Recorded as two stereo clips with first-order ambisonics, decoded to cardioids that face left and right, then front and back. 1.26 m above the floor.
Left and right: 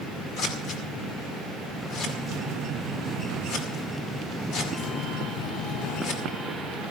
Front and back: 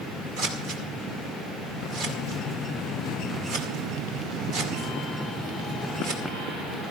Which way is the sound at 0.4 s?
135° left.